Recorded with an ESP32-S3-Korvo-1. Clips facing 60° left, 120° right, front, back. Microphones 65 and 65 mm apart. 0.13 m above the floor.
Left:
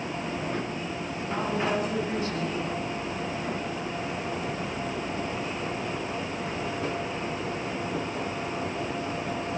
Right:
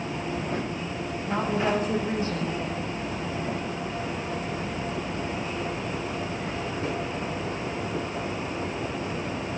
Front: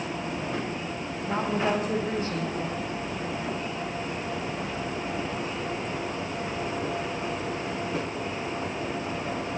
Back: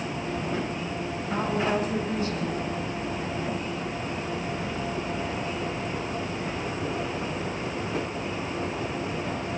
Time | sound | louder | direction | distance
1.3 | a woman speaking | right 2 dB, even | 60° right | 6 m